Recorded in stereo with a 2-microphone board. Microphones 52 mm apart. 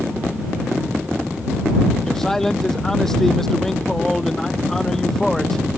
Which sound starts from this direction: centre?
A man speaking, at 2.0 s.